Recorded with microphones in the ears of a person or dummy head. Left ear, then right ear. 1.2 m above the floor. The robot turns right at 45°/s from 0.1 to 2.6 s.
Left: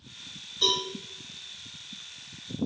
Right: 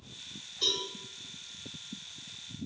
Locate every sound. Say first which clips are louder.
0.6 s a cowbell: left 5 dB; 25° left (ahead or behind), 1.5 m; by 0.8 s 15° left (ahead or behind), 1.5 m